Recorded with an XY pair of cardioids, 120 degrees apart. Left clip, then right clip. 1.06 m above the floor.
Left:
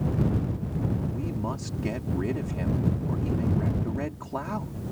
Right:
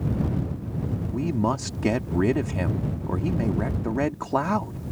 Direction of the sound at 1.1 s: 55° right.